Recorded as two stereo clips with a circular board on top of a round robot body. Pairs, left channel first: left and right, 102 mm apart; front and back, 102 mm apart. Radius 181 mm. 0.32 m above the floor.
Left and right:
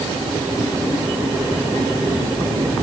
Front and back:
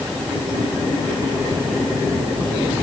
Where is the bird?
No bird in this recording.